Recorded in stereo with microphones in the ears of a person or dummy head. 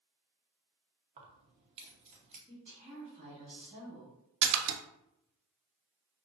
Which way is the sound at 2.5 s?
30° right (ahead or behind).